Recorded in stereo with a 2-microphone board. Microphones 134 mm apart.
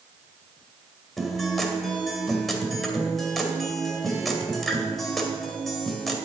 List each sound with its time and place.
1.2 s a guitar: centre (ahead or behind), 2.0 m